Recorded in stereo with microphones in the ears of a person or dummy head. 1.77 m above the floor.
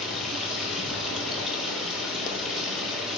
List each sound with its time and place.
0.0 s running water: 5° left (ahead or behind), 1.6 m